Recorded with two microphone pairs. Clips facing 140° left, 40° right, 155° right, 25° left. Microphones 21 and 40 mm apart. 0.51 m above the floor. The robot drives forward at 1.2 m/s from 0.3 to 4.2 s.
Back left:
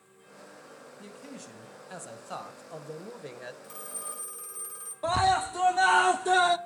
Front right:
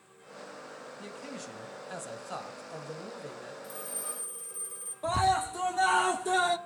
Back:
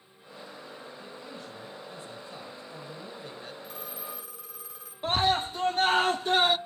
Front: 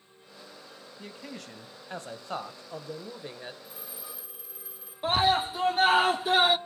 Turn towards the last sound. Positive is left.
turn(degrees=95)